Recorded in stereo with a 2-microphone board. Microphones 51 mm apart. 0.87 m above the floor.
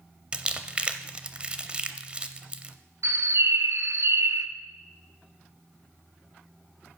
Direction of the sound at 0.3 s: 20° right (ahead or behind).